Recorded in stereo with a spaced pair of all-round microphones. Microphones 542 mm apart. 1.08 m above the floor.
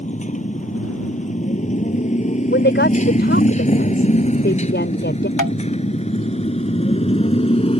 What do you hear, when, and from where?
0.0 s a motorcycle: 15° left (ahead or behind); by 7.8 s 10° left (ahead or behind)
2.5 s a woman speaking: 20° left (ahead or behind)
5.4 s tapping: 35° left (ahead or behind)